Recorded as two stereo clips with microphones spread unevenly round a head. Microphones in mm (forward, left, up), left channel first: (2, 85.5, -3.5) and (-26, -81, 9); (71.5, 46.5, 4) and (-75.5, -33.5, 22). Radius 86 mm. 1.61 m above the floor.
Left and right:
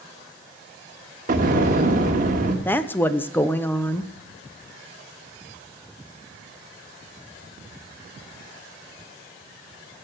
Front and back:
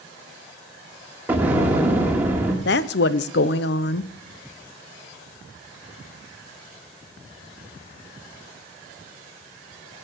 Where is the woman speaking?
Straight ahead, 0.7 m.